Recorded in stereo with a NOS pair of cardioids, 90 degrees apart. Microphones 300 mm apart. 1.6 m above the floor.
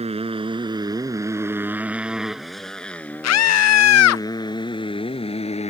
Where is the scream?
60° left.